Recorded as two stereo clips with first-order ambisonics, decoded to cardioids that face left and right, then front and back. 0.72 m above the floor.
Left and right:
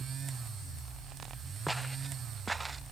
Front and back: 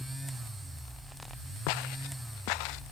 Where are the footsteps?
Straight ahead; by 2.8 s 10° right.